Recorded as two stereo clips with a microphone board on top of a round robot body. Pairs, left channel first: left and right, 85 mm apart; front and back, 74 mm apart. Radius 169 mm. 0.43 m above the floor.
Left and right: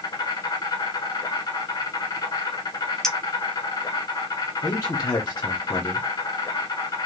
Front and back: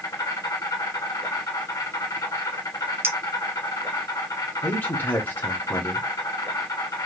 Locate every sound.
0.0 s an insect: 40° left, 1.0 m
3.0 s a clink: 170° left, 0.8 m
4.6 s a man speaking: 45° left, 1.2 m